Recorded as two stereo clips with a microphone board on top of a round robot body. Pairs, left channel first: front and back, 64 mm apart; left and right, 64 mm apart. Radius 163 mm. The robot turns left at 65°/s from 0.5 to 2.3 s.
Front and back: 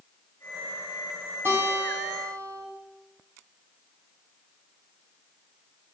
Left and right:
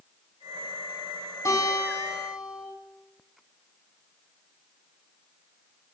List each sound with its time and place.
1.4 s a guitar: 125° left, 8 m; by 2.7 s 70° left, 8 m